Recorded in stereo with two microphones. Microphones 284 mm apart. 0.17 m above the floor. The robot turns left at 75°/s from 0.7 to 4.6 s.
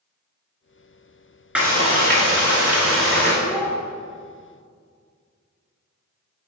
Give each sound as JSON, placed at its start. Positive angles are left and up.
{"t": 1.6, "sound": "frying", "azimuth_deg": -5, "distance_m": 1.6}
{"t": 3.4, "sound": "a child speaking", "side_deg": 40, "distance_m": 1.8}